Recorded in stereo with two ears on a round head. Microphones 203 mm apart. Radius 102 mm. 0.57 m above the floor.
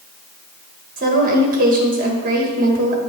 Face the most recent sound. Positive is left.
turn(degrees=-40)  # may be behind; listen again after turning